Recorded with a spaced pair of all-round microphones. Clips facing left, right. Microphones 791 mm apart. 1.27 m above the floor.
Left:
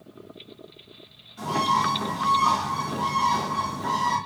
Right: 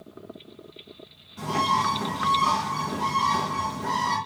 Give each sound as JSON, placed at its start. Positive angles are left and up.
{"t": 1.4, "sound": "a bird", "side_deg": -60, "distance_m": 3.0}